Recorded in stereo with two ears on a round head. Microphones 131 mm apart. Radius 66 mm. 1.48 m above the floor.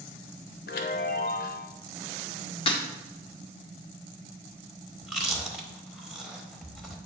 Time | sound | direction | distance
0.7 | a chime | 75° left (ahead or behind) | 0.9 m
2.7 | breaking glass | 35° left (ahead or behind) | 1.2 m
5.0 | chewing | centre (ahead or behind) | 0.9 m